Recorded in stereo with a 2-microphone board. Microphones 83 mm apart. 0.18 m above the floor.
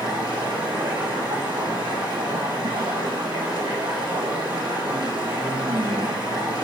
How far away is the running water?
About 5.5 m.